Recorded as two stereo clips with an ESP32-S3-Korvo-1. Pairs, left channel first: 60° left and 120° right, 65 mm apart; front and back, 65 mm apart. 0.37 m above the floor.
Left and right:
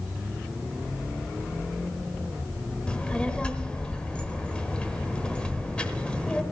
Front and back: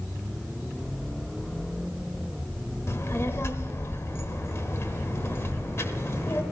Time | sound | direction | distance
2.9 | a child speaking | 5° right | 1.1 m